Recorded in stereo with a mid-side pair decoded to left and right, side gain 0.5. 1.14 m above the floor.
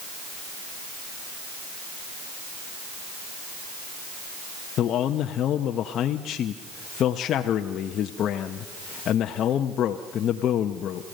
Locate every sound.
4.8 s a man speaking: 60° left, 0.9 m